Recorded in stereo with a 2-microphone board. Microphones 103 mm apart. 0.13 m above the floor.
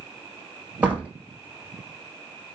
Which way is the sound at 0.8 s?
15° right (ahead or behind).